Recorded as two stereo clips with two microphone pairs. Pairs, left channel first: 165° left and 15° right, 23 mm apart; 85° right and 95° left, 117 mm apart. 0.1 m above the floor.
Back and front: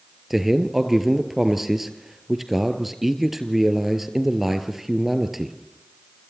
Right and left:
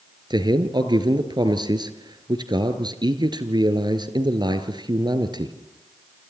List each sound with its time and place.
0.3 s a man speaking: 65° left, 1.7 m